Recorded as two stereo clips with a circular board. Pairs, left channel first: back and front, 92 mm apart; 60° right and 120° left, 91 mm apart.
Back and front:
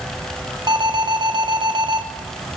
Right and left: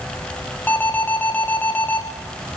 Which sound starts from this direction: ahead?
An alarm, at 0.7 s.